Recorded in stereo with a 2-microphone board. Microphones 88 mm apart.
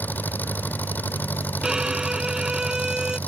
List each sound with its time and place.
0.0 s an engine running: 20° left (ahead or behind)
1.6 s a violin: 10° right (ahead or behind)